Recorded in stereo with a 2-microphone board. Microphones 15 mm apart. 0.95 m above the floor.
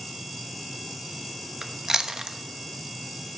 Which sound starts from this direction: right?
Chewing, at 1.6 s.